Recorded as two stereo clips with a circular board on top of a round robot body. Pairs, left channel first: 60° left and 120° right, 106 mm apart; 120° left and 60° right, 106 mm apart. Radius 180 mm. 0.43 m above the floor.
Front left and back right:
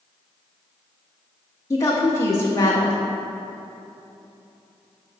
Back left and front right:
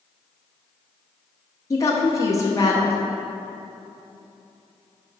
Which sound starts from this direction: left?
A woman speaking, at 1.7 s.